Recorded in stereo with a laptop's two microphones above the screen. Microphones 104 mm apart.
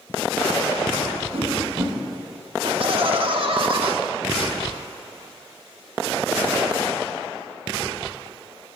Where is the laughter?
60° right (ahead or behind), 2.5 m.